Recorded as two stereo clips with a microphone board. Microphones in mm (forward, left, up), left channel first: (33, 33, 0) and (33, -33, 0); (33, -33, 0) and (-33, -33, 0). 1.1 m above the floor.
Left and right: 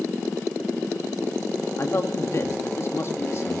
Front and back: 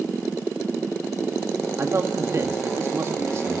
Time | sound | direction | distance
1.8 | a man speaking | 135° left | 1.9 m